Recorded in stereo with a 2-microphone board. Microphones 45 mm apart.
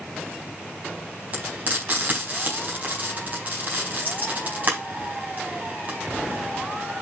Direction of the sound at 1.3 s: 35° right (ahead or behind).